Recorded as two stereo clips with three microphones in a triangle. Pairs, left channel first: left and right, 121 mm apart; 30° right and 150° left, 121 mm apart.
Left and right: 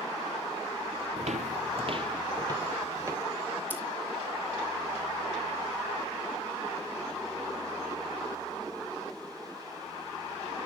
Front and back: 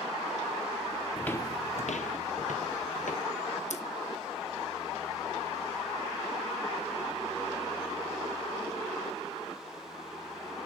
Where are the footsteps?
120° right, 0.6 m; by 3.2 s 25° right, 2.5 m.